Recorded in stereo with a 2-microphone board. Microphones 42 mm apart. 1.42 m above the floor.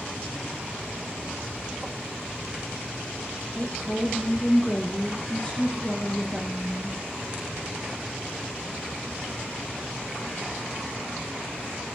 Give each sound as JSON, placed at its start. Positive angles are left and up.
{"t": 3.5, "sound": "a woman speaking", "side_deg": 25, "distance_m": 1.4}